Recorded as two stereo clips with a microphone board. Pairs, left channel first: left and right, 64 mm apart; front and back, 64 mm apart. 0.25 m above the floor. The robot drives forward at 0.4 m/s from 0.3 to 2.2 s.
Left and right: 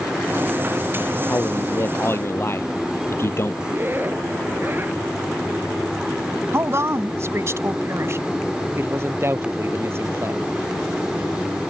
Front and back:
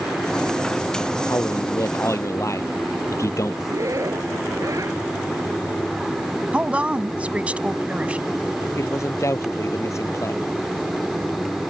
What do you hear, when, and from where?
1.3 s a man speaking: 40° left
3.6 s a zipper: 145° right
6.5 s a woman speaking: 115° right
8.8 s a man speaking: 40° right